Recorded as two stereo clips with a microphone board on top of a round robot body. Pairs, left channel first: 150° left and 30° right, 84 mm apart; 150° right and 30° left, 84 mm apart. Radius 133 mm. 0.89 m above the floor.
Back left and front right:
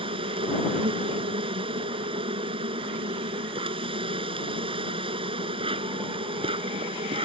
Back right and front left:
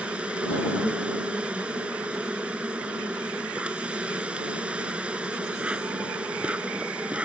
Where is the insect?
50° right.